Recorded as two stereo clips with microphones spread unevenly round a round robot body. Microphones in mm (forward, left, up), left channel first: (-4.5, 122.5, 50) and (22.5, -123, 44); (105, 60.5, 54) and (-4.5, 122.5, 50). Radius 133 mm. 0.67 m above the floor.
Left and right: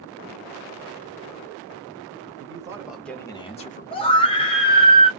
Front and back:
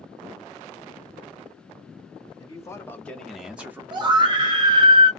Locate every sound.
2.4 s a man speaking: 45° right, 0.8 m; by 4.5 s 105° left, 1.0 m
3.9 s a scream: 155° left, 0.6 m